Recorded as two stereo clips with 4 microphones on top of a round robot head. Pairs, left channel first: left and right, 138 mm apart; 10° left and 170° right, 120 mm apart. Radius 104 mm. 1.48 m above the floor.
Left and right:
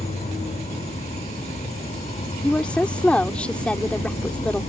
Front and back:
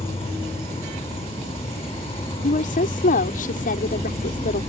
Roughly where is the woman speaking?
Ahead.